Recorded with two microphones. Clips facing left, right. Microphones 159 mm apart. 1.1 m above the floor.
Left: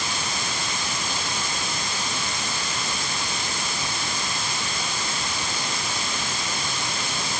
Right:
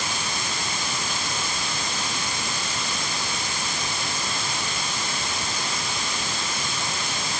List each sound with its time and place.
Only background noise.